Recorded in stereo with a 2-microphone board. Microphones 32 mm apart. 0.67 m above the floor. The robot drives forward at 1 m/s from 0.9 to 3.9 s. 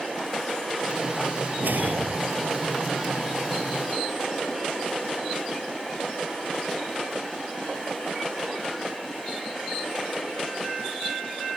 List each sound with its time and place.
1.6 s a whoosh: 80° right; by 2.5 s 85° right